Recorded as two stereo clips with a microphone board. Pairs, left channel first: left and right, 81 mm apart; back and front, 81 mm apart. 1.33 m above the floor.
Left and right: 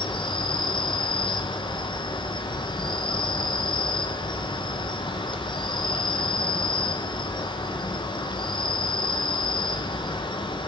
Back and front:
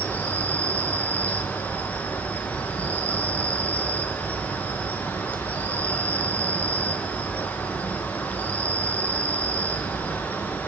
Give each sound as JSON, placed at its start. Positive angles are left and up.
{"t": 0.0, "sound": "an insect", "azimuth_deg": 105, "distance_m": 0.9}